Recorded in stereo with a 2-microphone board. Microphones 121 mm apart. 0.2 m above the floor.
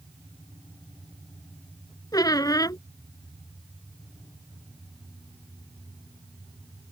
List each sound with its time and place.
2.1 s a squeak: 30° left (ahead or behind)